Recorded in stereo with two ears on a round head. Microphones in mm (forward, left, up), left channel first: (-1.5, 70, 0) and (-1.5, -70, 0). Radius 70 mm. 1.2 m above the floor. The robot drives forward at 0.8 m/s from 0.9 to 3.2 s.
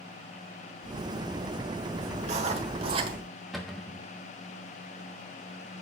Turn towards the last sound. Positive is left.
turn(degrees=0)  # may be behind; listen again after turning